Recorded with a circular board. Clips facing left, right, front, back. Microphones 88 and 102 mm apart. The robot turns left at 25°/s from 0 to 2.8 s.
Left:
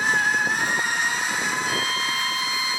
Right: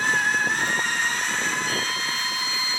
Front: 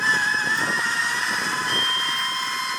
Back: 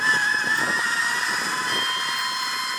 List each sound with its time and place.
1.7 s a violin: 115° left, 1.0 m; by 2.8 s 90° left, 1.0 m